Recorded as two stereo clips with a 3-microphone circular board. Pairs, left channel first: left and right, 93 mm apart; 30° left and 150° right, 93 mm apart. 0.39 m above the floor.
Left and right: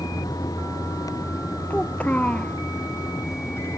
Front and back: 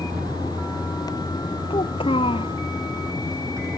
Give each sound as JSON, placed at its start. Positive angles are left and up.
{"t": 0.0, "sound": "a vehicle", "azimuth_deg": 140}
{"t": 1.7, "sound": "a child speaking", "azimuth_deg": 15}